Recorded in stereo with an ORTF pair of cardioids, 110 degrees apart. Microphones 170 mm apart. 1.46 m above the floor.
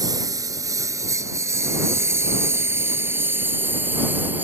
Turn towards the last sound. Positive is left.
turn(degrees=-10)